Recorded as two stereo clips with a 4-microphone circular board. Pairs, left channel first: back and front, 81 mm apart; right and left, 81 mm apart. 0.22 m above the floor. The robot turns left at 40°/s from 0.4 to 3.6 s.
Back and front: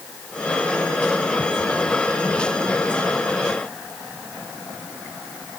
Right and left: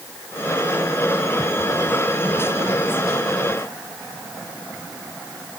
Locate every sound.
Only background noise.